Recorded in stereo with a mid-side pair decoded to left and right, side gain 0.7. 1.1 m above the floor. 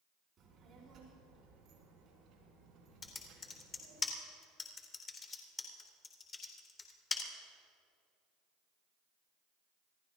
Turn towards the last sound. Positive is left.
turn(degrees=25)